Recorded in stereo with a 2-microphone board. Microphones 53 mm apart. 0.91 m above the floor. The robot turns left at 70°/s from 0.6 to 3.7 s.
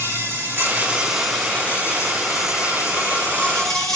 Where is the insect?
135° right, 5.5 m; by 4.0 s 10° left, 5.5 m.